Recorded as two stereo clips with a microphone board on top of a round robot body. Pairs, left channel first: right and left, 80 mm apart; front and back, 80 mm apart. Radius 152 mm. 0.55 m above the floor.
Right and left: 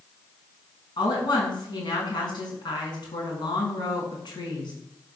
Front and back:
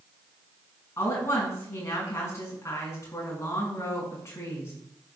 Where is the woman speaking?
60° right, 6.5 m.